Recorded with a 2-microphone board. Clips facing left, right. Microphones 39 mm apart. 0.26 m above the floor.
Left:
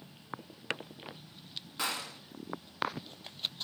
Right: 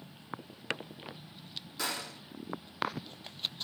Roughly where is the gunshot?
Left.